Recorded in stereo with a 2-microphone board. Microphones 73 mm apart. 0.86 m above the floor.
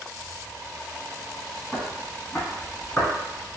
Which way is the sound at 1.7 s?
10° right (ahead or behind).